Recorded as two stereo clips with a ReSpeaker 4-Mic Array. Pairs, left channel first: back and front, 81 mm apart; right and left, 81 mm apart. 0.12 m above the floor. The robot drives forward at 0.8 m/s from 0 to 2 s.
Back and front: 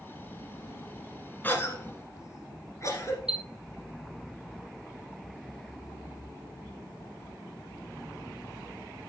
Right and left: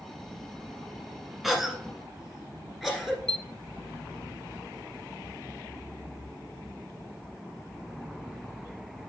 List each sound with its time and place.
1.4 s a cough: 175° left, 1.1 m
3.3 s a chime: 75° left, 0.7 m